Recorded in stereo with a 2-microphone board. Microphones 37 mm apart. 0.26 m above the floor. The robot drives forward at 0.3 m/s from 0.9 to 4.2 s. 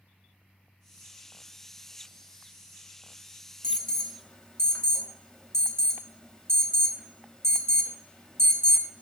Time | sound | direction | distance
3.6 | an alarm | 20° left (ahead or behind) | 0.7 m